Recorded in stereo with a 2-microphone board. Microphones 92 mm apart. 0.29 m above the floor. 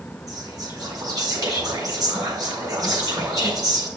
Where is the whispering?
45° right (ahead or behind), 4 m.